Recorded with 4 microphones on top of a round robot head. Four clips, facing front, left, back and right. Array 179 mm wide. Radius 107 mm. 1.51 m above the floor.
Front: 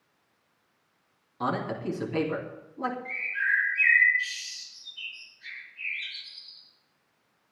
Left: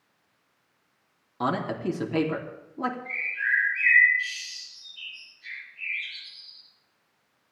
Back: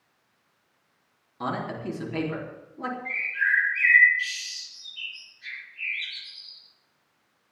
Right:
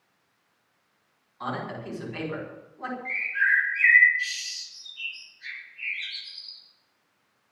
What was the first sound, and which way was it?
A man speaking, 85° left.